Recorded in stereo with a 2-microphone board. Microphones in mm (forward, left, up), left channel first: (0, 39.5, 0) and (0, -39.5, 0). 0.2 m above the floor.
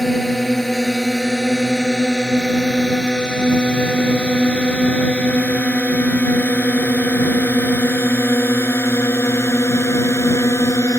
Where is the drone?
Centre (ahead or behind); by 11.0 s 40° left (ahead or behind).